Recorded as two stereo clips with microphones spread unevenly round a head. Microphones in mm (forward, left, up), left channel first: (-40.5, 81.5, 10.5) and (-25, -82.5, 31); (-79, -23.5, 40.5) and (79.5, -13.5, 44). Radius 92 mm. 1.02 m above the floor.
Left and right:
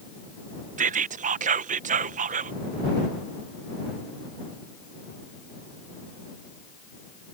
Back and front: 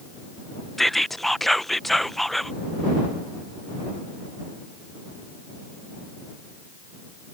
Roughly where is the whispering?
Right.